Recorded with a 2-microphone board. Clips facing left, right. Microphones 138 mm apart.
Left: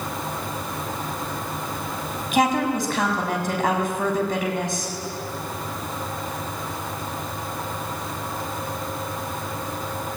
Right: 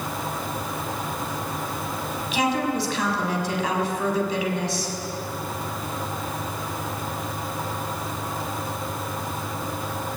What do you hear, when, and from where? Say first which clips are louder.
2.3 s a woman speaking: left 3 dB; 50° left (ahead or behind), 6.5 m